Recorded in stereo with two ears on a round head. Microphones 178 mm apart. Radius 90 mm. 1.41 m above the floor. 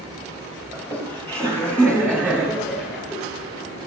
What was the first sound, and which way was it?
Laughter, 10° left (ahead or behind).